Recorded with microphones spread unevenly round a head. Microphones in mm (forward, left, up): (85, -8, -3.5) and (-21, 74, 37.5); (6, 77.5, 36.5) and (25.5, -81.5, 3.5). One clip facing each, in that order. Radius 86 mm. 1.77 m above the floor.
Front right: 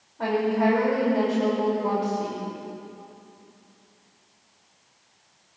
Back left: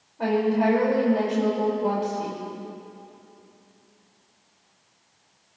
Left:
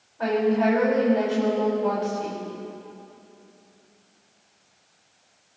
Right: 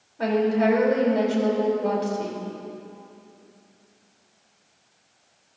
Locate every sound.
0.2 s a woman speaking: 140° right, 4.5 m